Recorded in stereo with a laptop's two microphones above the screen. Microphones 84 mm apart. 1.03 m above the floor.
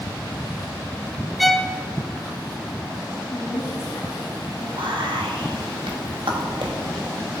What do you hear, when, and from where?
1.4 s a violin: centre (ahead or behind), 0.6 m
3.3 s a woman speaking: 65° left (ahead or behind), 2.5 m
4.8 s whispering: 75° right (ahead or behind), 1.2 m